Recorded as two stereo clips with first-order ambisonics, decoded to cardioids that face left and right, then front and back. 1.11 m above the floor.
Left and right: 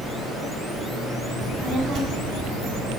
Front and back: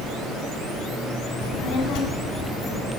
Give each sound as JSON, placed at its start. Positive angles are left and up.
{"t": 1.4, "sound": "a child speaking", "azimuth_deg": -20, "distance_m": 1.1}